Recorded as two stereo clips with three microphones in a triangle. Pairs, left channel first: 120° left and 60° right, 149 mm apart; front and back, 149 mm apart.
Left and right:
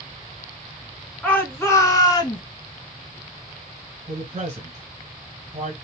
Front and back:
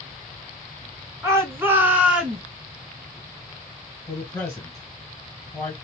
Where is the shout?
175° right, 1.3 m; by 2.4 s 100° left, 1.4 m.